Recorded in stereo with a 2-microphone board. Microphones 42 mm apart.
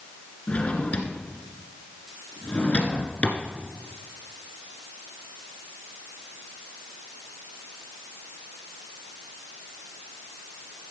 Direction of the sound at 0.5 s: 30° left (ahead or behind).